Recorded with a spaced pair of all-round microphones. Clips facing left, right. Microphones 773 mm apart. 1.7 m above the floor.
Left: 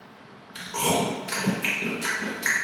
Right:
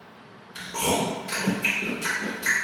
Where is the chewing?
35° left (ahead or behind), 0.8 m.